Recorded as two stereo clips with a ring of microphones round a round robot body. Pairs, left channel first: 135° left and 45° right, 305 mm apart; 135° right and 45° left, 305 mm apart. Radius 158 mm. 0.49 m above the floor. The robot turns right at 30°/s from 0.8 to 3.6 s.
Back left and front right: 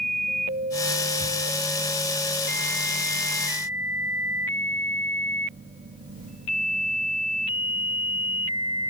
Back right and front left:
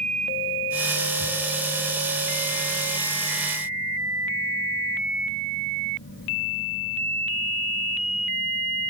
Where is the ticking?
90° left, 1.3 m.